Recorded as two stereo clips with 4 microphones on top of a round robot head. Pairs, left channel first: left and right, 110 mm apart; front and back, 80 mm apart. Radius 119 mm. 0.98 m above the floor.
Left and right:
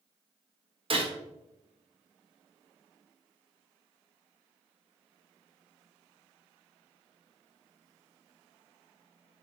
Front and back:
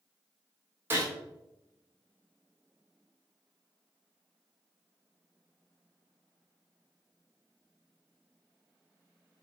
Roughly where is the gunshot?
Behind right.